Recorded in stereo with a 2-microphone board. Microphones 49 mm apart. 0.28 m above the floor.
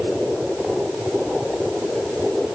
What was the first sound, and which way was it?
Only background noise.